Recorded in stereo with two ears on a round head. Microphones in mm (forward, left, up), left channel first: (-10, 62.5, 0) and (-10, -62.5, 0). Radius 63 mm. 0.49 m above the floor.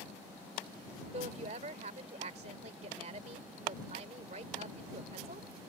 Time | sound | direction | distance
1.1 | a woman speaking | 50° right (ahead or behind) | ?